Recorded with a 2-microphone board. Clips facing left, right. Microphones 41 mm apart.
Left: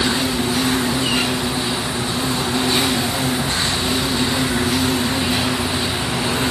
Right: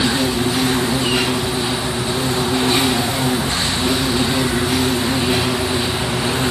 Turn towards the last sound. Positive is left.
turn(degrees=-80)